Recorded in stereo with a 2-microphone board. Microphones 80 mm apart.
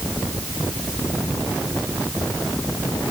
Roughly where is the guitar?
No guitar in this recording.